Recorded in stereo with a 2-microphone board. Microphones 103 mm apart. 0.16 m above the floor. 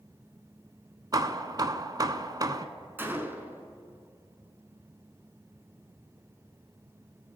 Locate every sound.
1.1 s hammering: 40° right (ahead or behind), 0.6 m
3.0 s a gunshot: 20° right (ahead or behind), 0.9 m